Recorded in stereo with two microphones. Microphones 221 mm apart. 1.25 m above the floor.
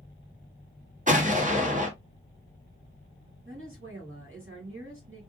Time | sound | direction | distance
1.1 | an explosion | 35° right (ahead or behind) | 1.2 m
3.5 | a woman speaking | 65° right (ahead or behind) | 2 m